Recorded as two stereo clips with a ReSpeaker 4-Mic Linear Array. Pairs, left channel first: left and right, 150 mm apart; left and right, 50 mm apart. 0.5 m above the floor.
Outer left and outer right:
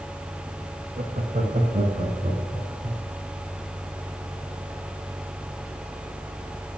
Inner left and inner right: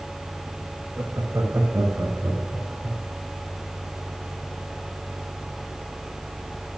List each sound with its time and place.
1.0 s laughter: 60° right (ahead or behind), 1.7 m; by 3.0 s 50° right (ahead or behind), 4 m